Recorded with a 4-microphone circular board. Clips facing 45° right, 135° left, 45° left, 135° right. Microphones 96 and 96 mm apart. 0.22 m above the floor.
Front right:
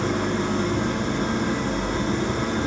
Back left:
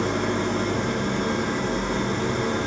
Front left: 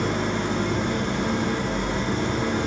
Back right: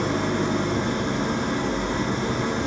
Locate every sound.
0.0 s an engine running: 95° right, 1.9 m